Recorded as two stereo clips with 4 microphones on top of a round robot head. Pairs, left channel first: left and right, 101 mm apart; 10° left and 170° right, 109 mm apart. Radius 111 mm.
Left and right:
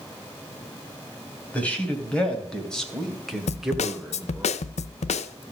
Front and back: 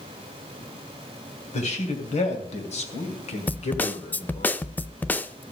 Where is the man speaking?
15° left, 3 m; by 4.5 s 15° right, 1.6 m.